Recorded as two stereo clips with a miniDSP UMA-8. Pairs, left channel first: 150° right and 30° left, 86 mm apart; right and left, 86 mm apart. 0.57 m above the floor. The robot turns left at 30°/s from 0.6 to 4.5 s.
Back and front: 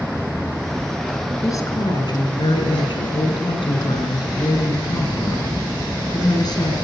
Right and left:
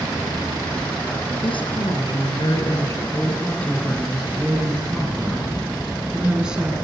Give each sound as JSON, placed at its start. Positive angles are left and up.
{"t": 1.4, "sound": "a woman speaking", "azimuth_deg": -100, "distance_m": 8.0}